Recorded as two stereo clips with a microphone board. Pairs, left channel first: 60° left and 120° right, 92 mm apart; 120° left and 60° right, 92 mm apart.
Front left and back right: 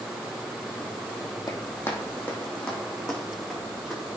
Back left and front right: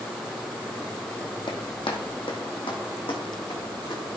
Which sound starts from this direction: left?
Running footsteps, at 1.5 s.